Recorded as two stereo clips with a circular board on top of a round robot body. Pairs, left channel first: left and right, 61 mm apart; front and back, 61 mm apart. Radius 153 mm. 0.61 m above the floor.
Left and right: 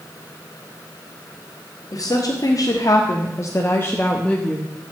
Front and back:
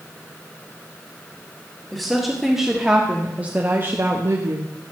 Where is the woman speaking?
85° left, 3 m; by 4.7 s 175° left, 1.8 m.